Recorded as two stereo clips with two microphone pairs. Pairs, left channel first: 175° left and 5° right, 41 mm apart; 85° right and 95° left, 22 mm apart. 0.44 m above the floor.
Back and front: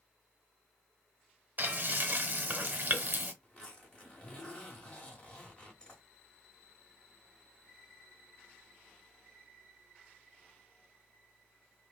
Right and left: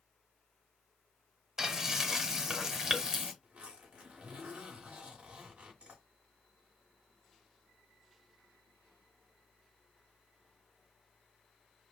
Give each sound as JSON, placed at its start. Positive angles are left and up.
{"t": 1.6, "sound": "frying", "azimuth_deg": 40, "distance_m": 0.8}
{"t": 3.4, "sound": "a zipper", "azimuth_deg": 105, "distance_m": 1.6}